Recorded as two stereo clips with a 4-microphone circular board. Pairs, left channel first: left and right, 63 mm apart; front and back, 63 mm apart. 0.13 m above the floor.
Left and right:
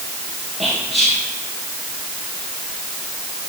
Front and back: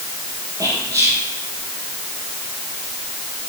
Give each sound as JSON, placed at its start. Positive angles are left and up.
{"t": 0.6, "sound": "whispering", "azimuth_deg": 180, "distance_m": 3.5}